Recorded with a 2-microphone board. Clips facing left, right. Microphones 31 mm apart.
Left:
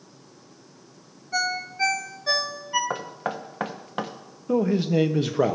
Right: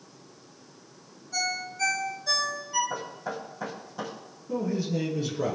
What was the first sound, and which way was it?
A ringtone, 35° left (ahead or behind).